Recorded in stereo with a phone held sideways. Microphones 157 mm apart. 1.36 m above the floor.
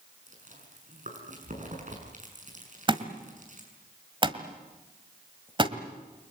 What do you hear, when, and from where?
0.3 s chewing: 55° right (ahead or behind), 6.5 m
2.9 s a thud: 30° right (ahead or behind), 1.8 m